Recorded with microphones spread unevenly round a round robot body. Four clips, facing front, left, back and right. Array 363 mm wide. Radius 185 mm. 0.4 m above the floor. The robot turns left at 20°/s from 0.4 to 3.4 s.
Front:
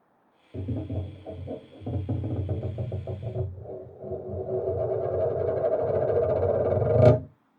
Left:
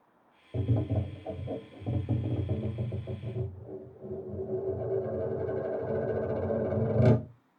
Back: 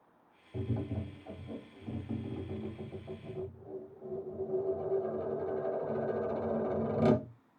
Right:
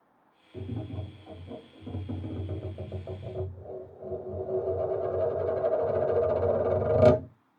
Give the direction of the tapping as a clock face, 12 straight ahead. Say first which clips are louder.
Left 6 dB, front 4 dB; 10 o'clock.